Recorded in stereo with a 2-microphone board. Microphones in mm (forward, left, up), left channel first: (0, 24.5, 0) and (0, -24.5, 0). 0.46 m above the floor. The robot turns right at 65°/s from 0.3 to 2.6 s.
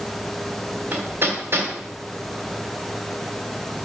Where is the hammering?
35° right (ahead or behind), 2 m; by 1.7 s 65° right (ahead or behind), 2 m.